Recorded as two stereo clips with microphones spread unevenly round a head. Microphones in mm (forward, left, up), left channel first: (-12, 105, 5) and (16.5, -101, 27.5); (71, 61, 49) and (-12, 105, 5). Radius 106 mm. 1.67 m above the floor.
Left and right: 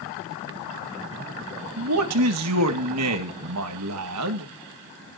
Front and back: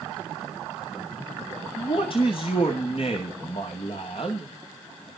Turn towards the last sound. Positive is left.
turn(degrees=-85)